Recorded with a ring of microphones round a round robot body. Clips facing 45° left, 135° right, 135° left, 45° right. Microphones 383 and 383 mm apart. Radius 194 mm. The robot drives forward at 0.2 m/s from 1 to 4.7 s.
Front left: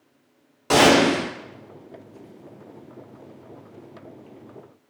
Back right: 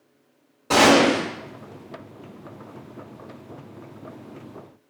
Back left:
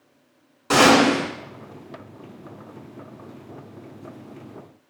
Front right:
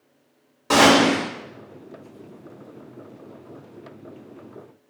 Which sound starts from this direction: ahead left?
A gunshot, at 0.7 s.